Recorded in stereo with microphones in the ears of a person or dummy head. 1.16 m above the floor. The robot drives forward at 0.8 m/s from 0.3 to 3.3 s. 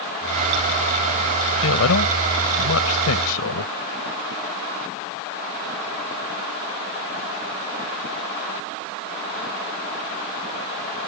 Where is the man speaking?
75° left (ahead or behind); by 3.7 s 85° left.